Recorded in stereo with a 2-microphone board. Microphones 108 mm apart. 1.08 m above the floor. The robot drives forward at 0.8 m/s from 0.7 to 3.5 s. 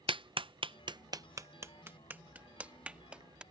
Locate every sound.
0.1 s a clap: 50° right (ahead or behind); by 3.4 s 10° right (ahead or behind)